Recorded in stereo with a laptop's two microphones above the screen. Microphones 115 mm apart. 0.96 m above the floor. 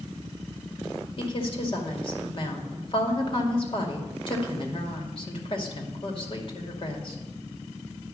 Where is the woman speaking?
50° left (ahead or behind), 2.5 m.